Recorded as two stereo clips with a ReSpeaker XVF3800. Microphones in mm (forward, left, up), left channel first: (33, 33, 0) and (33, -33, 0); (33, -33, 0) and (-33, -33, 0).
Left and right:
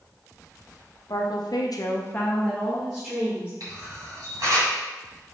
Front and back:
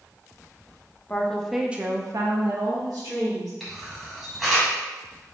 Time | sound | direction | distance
1.1 | a woman speaking | 70° left | 1.0 m
3.6 | a camera shutter | 90° right | 1.9 m